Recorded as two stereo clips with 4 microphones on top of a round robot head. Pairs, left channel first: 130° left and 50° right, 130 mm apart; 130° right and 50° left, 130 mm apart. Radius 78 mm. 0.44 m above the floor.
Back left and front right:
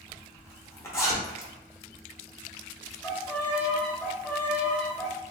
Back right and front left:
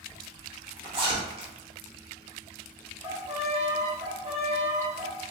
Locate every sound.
0.1 s a zipper: 70° left, 0.9 m
3.0 s a violin: 55° left, 1.1 m